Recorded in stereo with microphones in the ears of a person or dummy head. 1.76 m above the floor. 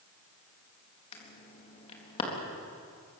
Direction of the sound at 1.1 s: 30° left (ahead or behind).